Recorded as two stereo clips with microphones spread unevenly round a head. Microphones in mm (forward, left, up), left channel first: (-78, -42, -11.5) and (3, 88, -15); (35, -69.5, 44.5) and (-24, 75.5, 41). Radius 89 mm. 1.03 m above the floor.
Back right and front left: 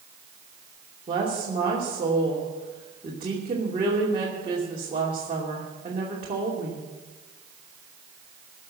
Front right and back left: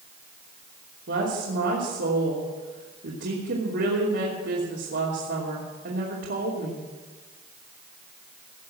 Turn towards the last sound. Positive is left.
turn(degrees=115)